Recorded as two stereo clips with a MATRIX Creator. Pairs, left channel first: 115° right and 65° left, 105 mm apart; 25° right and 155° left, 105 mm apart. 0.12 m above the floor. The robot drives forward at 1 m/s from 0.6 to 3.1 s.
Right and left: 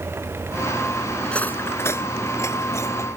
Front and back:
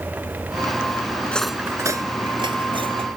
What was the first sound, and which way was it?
Cutlery clinking, 45° right.